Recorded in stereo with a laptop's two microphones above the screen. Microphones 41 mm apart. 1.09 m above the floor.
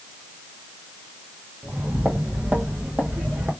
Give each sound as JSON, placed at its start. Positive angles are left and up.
{"t": 1.6, "sound": "footsteps", "side_deg": -45, "distance_m": 1.5}